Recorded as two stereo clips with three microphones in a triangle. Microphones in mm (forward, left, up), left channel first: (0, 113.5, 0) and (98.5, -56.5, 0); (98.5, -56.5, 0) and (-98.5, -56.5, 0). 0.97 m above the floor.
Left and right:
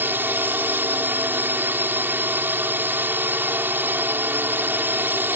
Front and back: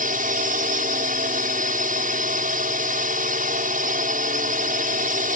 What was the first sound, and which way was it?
A drone, 140° right.